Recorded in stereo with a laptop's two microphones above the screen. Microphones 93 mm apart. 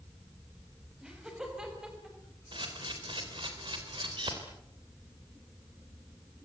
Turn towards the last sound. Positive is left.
turn(degrees=-60)  # may be behind; listen again after turning